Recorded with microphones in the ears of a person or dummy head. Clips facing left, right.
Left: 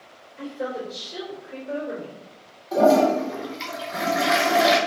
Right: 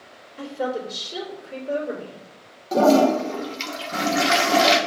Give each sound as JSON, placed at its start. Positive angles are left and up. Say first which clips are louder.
{"t": 0.4, "sound": "a woman speaking", "louder": "right 3 dB", "side_deg": -60, "distance_m": 3.0}
{"t": 2.7, "sound": "a toilet flushing", "louder": "right 1 dB", "side_deg": -40, "distance_m": 1.2}